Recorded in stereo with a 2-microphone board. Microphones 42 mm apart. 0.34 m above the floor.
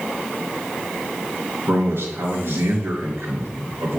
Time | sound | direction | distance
1.7 | a man speaking | 70° right (ahead or behind) | 2.5 m